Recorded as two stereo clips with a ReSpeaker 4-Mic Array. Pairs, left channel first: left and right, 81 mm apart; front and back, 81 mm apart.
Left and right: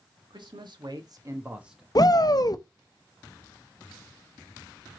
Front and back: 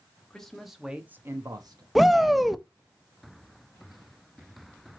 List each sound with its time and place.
0.3 s a man speaking: 85° right, 2 m; by 1.9 s straight behind, 1.3 m
1.9 s a shout: 90° left, 0.6 m